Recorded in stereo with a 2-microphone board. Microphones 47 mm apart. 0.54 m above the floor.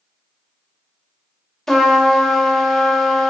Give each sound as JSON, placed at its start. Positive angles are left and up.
{"t": 1.7, "sound": "a trumpet", "side_deg": 5, "distance_m": 0.5}